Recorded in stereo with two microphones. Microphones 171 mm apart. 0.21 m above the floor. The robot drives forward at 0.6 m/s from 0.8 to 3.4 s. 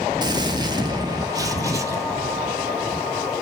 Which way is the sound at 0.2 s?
25° right (ahead or behind).